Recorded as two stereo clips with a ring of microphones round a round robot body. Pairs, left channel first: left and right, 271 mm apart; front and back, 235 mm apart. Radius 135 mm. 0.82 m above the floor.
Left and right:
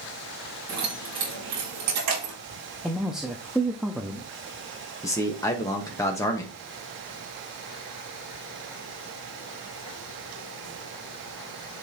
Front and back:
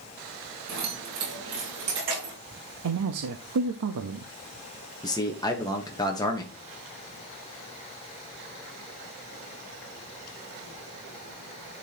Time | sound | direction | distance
0.7 | keys jangling | 150° right | 3.5 m
2.8 | a man speaking | straight behind | 0.8 m
5.0 | a man speaking | 35° left | 1.0 m